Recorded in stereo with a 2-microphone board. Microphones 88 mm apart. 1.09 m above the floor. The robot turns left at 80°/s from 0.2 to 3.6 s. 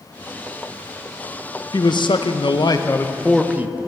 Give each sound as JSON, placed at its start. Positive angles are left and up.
{"t": 1.7, "sound": "a man speaking", "azimuth_deg": 130, "distance_m": 0.6}